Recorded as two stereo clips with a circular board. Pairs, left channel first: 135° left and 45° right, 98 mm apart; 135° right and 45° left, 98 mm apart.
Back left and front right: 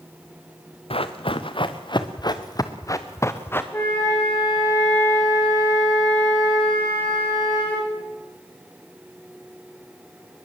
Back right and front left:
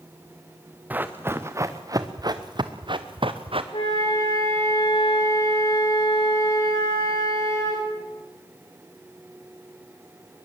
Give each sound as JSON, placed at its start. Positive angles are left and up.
{"t": 0.9, "sound": "running footsteps", "azimuth_deg": 115, "distance_m": 1.7}
{"t": 3.7, "sound": "a flute", "azimuth_deg": -160, "distance_m": 9.0}